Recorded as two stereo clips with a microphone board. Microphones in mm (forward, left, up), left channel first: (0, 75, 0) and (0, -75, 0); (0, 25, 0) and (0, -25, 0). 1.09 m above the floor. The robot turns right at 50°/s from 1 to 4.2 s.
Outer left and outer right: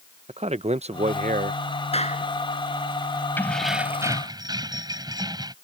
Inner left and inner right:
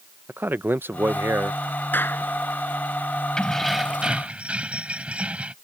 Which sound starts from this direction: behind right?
A man speaking, at 0.3 s.